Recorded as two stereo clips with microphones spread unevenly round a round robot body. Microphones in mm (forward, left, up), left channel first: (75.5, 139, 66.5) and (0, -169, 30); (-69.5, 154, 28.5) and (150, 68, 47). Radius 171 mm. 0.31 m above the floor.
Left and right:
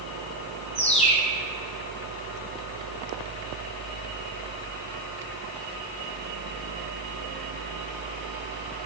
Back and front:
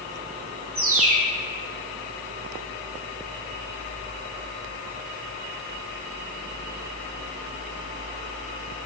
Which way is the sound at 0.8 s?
5° left.